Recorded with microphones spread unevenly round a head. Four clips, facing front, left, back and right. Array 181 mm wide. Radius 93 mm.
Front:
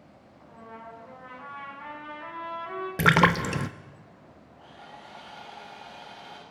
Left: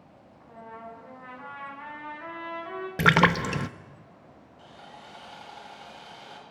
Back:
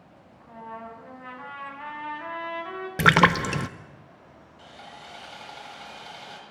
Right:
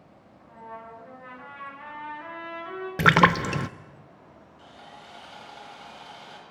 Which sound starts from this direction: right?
A splash, at 3.0 s.